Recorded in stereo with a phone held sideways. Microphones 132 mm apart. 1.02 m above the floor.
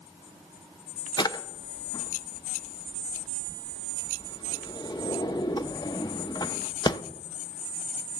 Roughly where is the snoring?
No snoring in this recording.